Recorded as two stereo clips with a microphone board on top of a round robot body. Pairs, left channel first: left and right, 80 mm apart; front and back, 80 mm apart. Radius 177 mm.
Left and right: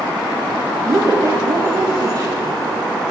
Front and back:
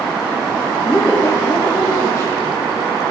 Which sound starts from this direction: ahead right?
A woman speaking, at 0.9 s.